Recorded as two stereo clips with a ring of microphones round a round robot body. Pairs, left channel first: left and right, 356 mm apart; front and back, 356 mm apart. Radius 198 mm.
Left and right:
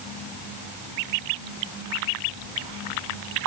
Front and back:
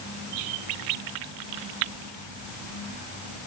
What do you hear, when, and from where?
Only background noise.